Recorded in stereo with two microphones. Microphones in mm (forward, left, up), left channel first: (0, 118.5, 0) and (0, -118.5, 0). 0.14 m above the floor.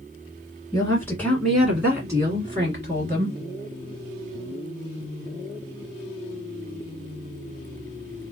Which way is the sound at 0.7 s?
15° left (ahead or behind).